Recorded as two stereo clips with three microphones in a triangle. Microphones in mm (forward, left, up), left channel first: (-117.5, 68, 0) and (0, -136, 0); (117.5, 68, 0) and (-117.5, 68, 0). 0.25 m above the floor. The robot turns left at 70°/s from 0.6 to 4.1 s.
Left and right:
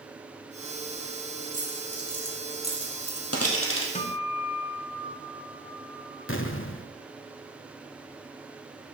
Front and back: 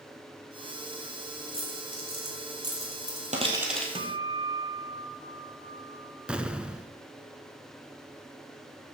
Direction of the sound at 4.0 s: 140° left.